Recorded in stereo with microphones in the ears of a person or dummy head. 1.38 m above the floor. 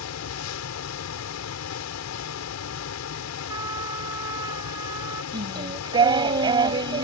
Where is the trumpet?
25° right (ahead or behind).